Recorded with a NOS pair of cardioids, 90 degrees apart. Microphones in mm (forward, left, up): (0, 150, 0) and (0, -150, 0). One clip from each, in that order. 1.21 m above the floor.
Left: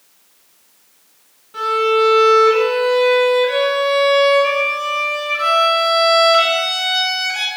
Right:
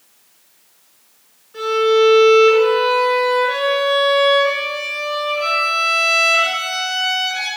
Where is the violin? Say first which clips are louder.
Right 1 dB; 55° left, 8 m.